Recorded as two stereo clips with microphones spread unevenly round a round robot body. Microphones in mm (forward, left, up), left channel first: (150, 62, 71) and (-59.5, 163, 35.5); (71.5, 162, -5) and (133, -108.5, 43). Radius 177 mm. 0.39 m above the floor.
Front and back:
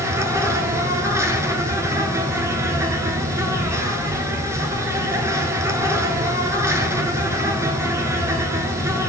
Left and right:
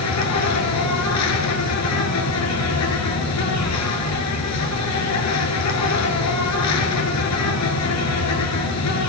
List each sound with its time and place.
0.0 s an insect: 75° left, 1.3 m